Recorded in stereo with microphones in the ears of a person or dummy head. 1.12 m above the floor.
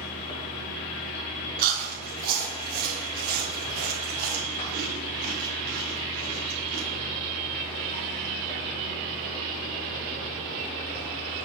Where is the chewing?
50° right (ahead or behind), 2.5 m.